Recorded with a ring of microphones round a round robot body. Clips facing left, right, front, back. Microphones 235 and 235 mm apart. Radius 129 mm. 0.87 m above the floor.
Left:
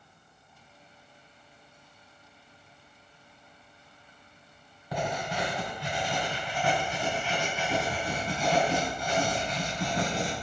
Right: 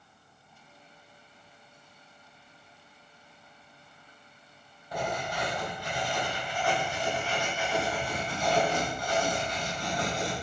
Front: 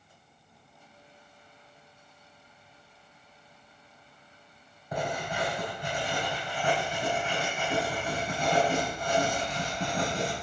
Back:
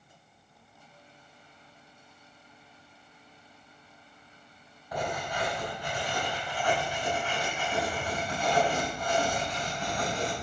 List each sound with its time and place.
4.9 s writing: 70° left, 5 m